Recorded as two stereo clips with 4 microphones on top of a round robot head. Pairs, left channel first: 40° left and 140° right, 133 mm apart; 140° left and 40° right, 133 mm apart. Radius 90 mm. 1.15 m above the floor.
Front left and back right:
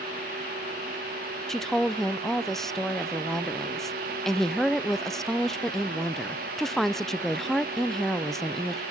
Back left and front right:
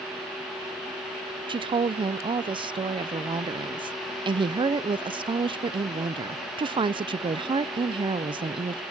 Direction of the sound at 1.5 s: 45° right.